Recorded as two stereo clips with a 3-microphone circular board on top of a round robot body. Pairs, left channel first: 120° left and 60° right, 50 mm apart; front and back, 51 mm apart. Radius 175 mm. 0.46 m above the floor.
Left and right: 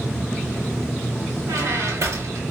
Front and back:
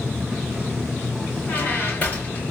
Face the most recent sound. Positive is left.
turn(degrees=-65)